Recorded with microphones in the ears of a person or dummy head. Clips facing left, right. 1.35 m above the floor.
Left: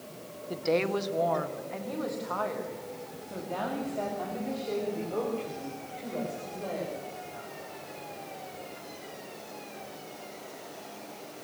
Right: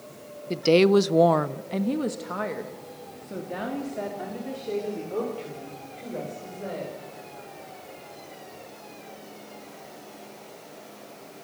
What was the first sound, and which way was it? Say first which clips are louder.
A woman speaking: right 10 dB; 35° right (ahead or behind).